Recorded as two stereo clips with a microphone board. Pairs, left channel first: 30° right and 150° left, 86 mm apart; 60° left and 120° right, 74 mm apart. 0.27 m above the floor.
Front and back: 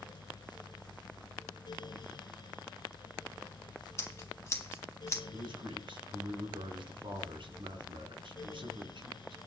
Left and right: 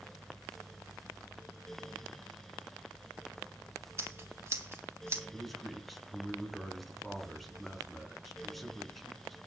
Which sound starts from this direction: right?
Scissors, at 4.0 s.